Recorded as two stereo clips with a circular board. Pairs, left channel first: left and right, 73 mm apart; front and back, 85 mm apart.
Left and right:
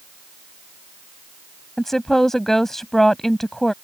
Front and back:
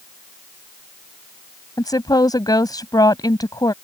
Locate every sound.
1.8 s a woman speaking: 10° left